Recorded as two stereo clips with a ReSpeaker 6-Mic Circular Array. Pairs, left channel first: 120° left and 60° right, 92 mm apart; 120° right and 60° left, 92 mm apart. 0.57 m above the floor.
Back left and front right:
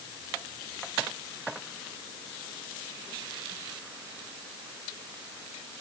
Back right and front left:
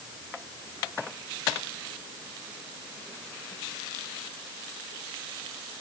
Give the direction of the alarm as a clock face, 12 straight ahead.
No alarm in this recording.